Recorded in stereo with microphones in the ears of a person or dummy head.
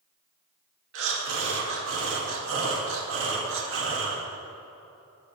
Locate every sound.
0.9 s breathing: 75° right (ahead or behind), 2.5 m